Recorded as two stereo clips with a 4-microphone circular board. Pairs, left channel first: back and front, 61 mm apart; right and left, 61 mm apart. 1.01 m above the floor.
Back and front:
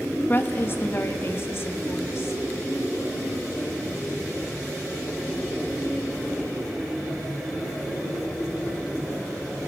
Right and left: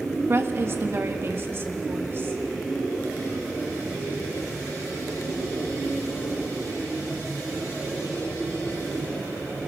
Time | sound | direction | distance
0.3 | a woman speaking | 130° left | 1.5 m